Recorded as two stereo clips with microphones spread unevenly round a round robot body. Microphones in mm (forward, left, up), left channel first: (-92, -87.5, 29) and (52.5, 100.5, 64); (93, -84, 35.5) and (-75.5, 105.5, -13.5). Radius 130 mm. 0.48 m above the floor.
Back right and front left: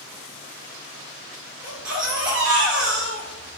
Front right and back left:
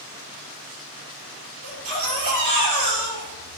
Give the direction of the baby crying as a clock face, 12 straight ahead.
7 o'clock.